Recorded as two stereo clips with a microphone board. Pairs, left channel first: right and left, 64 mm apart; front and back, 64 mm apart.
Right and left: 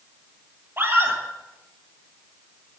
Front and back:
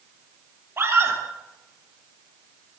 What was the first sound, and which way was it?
A scream, 140° left.